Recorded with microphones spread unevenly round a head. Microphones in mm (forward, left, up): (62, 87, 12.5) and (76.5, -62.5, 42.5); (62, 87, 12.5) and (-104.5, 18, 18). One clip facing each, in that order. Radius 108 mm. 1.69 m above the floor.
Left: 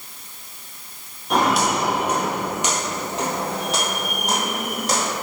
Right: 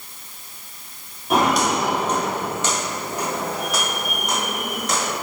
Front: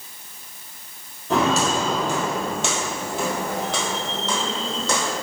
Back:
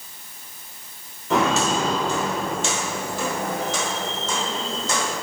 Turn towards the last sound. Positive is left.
turn(degrees=40)